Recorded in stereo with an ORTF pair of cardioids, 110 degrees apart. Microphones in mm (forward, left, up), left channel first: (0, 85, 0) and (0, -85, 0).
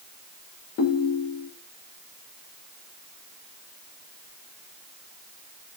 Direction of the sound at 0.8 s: 60° left.